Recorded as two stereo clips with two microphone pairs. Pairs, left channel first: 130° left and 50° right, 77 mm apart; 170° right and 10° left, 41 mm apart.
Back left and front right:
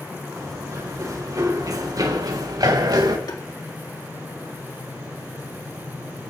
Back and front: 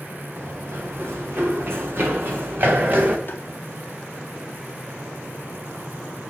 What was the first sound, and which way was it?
Running footsteps, 10° right.